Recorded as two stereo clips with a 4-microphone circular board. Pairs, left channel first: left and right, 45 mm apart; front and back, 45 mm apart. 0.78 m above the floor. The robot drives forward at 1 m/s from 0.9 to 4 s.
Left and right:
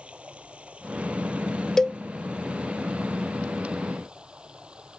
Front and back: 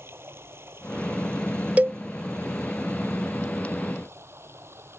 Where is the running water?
155° right; by 5.0 s 160° right.